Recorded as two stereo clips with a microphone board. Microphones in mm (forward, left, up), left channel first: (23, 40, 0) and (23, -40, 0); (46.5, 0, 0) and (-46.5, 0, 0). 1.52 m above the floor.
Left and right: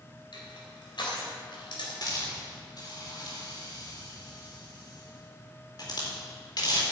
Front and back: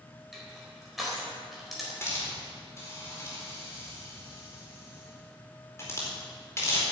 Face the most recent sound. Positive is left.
turn(degrees=60)